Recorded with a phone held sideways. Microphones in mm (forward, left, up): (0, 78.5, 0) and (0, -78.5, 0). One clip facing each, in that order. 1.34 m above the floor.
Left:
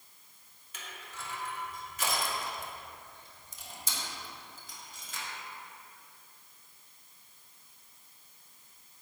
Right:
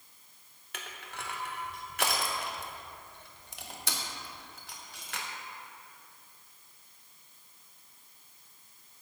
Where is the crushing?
65° right (ahead or behind), 0.7 m.